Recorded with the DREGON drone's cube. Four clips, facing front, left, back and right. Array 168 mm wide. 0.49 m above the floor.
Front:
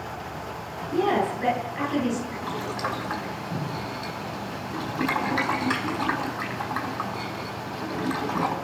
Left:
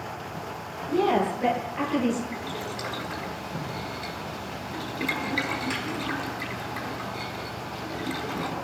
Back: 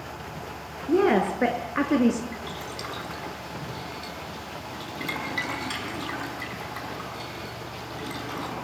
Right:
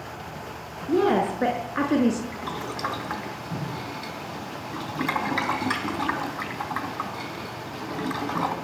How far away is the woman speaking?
About 7.5 m.